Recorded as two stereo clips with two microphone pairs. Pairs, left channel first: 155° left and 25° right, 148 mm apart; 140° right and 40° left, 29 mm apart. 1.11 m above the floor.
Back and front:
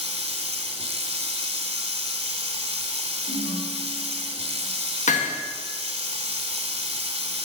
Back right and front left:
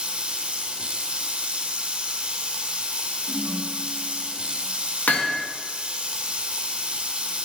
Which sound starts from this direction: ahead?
Running water, at 0.0 s.